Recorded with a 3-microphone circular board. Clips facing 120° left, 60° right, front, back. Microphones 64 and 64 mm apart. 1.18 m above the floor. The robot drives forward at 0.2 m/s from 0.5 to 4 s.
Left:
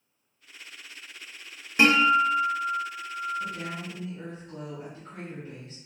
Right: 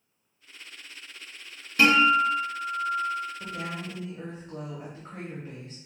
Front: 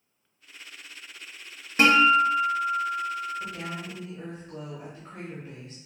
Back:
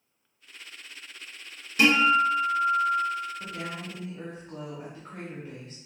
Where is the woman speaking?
105° right, 0.7 m; by 5.8 s 115° right, 0.8 m.